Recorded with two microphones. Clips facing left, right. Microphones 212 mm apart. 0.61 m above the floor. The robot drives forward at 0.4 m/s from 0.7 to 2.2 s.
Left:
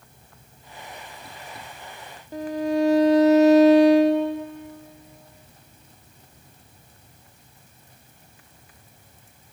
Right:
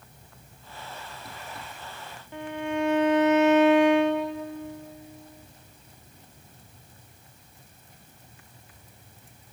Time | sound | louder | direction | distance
2.3 | a violin | left 6 dB | 40° left (ahead or behind) | 0.6 m